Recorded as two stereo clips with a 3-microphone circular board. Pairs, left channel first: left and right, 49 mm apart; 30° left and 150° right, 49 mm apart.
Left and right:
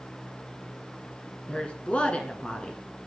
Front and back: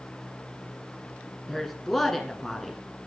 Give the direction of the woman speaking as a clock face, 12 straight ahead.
8 o'clock.